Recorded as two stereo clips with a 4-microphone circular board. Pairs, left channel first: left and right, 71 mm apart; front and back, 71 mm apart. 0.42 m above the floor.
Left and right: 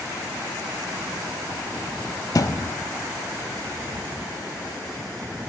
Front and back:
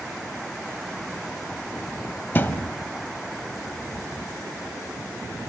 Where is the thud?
60° left, 1.0 m.